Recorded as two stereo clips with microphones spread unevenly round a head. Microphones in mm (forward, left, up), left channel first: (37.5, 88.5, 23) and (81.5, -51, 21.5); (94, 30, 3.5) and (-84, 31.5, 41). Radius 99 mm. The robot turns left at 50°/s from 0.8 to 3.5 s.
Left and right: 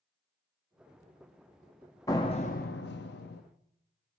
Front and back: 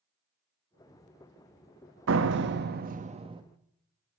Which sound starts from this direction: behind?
A door slam, at 2.1 s.